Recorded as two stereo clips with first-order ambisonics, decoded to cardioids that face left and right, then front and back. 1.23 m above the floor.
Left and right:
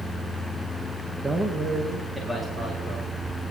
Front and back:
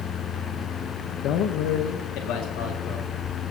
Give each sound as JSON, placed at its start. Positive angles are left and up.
{"t": 1.2, "sound": "a man speaking", "azimuth_deg": -15, "distance_m": 0.8}